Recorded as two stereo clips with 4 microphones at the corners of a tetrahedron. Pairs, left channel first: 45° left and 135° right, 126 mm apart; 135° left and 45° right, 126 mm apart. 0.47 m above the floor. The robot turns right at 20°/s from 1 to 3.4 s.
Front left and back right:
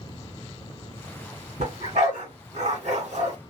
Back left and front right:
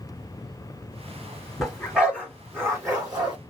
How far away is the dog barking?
About 2 m.